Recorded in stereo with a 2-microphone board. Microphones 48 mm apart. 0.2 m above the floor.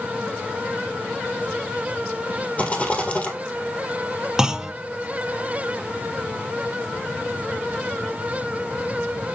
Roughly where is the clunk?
Centre.